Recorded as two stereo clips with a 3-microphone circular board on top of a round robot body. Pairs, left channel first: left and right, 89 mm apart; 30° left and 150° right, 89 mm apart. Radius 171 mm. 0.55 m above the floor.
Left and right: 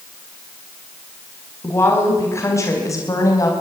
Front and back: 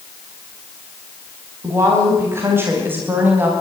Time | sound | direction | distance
1.6 | a woman speaking | 150° left | 5 m